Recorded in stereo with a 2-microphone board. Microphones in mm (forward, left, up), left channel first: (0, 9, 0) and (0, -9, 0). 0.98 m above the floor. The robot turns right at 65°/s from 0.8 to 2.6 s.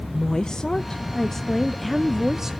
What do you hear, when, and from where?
0.1 s a woman speaking: 110° left, 0.5 m; by 2.5 s 140° right, 0.5 m